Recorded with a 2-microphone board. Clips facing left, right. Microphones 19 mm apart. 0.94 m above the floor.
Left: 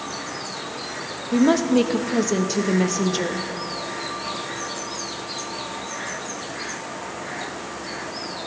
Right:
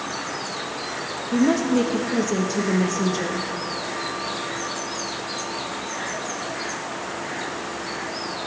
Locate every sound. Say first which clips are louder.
1.3 s a woman speaking: left 2 dB; 30° left (ahead or behind), 0.6 m